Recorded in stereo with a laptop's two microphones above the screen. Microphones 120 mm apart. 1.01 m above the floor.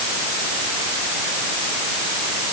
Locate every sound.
Only background noise.